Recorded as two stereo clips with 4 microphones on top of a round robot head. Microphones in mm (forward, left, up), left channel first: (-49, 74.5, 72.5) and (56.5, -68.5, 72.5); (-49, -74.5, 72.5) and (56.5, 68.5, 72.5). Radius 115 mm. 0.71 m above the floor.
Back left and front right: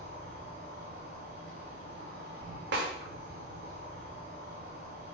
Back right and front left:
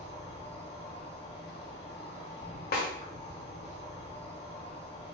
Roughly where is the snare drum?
Right.